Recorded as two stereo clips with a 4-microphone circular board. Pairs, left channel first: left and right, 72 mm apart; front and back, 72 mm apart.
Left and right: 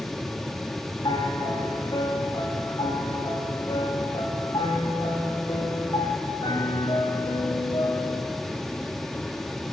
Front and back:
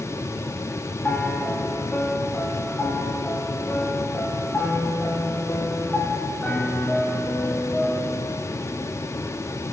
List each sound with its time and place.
1.0 s a piano: 65° left, 4.5 m